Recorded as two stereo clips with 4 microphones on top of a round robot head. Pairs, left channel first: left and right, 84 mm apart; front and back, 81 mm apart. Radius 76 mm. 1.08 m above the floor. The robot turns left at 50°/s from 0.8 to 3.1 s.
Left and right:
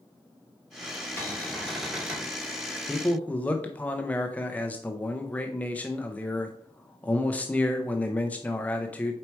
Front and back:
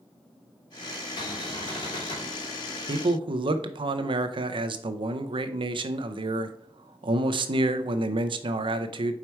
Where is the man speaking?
175° left, 0.6 m; by 9.1 s 165° left, 0.6 m.